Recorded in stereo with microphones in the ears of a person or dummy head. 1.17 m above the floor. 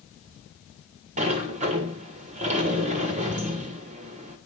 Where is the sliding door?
35° right (ahead or behind), 1.4 m.